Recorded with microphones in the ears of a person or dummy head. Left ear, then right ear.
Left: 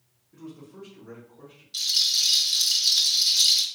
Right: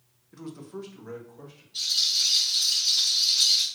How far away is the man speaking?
About 0.6 m.